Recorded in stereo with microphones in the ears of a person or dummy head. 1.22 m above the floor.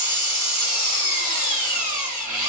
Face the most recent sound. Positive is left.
turn(degrees=-35)  # may be behind; listen again after turning